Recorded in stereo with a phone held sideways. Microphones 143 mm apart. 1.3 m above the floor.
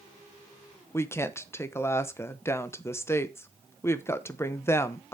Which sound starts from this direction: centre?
A woman speaking, at 0.9 s.